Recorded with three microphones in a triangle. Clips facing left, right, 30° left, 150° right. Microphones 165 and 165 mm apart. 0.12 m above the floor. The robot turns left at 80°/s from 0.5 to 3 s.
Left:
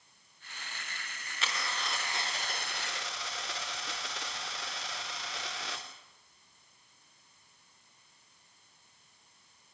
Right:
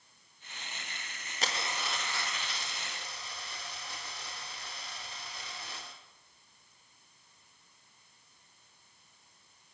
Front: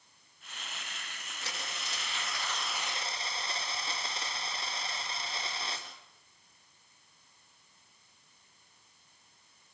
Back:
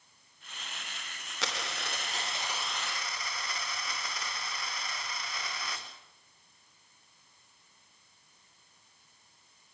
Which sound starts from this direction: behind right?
A dropped coin, at 1.4 s.